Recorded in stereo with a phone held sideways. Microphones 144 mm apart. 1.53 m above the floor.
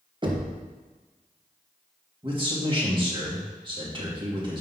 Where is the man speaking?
35° right (ahead or behind), 2.5 m.